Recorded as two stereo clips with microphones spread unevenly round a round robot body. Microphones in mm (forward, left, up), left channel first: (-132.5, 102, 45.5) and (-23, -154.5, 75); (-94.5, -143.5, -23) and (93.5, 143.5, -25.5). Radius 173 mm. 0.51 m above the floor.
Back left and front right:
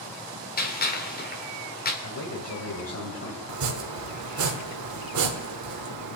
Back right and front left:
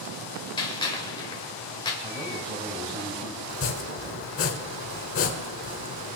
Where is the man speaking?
135° left, 2.5 m.